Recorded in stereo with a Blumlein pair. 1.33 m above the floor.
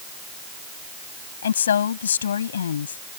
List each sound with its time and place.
1.4 s a woman speaking: 65° left